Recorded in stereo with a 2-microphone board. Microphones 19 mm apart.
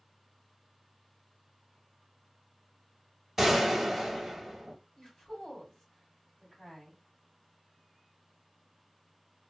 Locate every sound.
3.4 s a gunshot: 15° right (ahead or behind), 1.2 m
5.0 s a woman speaking: 40° left (ahead or behind), 2.5 m